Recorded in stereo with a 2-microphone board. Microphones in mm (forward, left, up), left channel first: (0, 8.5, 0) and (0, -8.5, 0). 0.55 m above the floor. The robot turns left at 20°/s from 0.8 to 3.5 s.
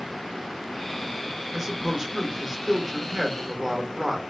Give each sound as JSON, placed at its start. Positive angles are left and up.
{"t": 1.5, "sound": "a man speaking", "side_deg": -25, "distance_m": 1.2}